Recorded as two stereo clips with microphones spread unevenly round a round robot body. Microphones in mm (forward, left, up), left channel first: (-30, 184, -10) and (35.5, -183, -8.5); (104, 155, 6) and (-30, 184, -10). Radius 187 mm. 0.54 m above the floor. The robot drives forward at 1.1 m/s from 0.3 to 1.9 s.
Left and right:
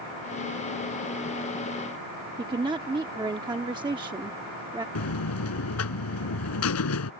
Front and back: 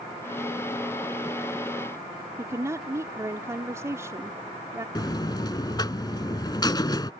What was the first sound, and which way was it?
A woman speaking, 150° right.